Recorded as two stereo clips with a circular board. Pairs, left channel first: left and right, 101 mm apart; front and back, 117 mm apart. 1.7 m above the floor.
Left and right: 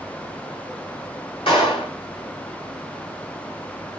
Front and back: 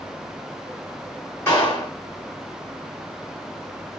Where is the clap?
65° left, 3 m.